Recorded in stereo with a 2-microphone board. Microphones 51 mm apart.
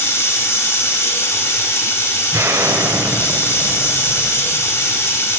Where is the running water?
55° left (ahead or behind), 1.7 m.